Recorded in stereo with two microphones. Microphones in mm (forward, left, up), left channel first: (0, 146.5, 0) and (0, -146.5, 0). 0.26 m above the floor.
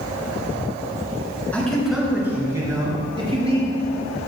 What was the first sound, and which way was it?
A man speaking, 5° left (ahead or behind).